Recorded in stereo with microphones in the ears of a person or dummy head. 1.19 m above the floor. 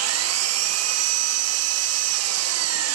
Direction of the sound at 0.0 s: 75° right (ahead or behind).